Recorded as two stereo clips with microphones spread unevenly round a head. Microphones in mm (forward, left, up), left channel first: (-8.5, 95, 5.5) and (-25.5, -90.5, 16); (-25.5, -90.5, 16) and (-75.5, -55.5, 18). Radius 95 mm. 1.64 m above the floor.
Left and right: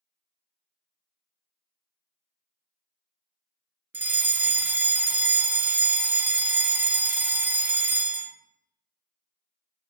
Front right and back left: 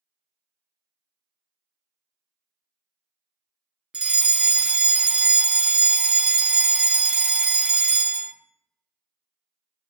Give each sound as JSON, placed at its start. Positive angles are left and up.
{"t": 3.9, "sound": "a fire alarm", "azimuth_deg": -165, "distance_m": 0.6}